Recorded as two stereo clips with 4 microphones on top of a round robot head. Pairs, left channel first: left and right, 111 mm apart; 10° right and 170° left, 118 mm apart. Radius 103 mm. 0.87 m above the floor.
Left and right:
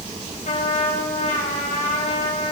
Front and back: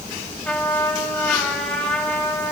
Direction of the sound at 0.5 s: 70° left.